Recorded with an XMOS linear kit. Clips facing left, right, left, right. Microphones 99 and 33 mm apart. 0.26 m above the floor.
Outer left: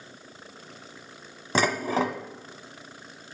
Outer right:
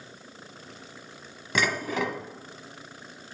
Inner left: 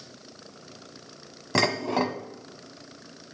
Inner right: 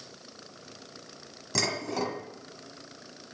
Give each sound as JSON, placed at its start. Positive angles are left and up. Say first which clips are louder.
{"t": 1.6, "sound": "dishes clattering", "louder": "outer left 3 dB, inner left 6 dB", "side_deg": 35, "distance_m": 1.3}